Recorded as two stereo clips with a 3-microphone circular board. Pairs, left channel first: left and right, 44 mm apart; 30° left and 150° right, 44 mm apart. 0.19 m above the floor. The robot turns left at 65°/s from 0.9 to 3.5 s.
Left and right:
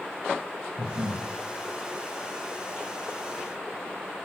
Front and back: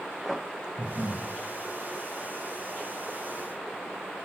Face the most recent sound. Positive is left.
turn(degrees=145)